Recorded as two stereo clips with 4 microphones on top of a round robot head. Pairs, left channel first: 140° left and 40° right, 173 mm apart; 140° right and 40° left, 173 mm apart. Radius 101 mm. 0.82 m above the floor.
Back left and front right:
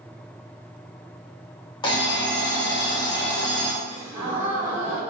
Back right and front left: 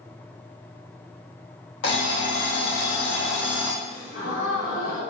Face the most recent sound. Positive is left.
turn(degrees=-110)